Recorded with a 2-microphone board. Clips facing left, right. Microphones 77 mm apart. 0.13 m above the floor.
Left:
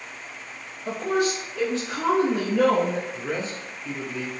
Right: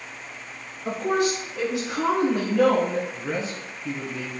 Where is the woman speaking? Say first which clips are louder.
Right 1 dB; 35° right (ahead or behind), 1.2 m; by 3.0 s 15° left (ahead or behind), 1.4 m.